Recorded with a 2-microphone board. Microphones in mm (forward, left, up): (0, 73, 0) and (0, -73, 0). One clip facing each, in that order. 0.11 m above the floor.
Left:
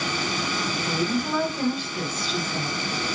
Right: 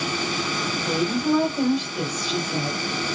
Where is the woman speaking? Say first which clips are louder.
Right 5 dB; 15° right (ahead or behind), 1.2 m.